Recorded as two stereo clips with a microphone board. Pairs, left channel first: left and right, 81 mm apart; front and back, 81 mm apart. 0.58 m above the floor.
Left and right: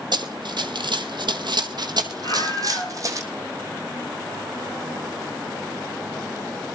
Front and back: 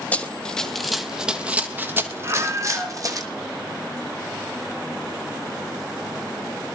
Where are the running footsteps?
70° right, 1.3 m; by 3.2 s 140° right, 1.7 m.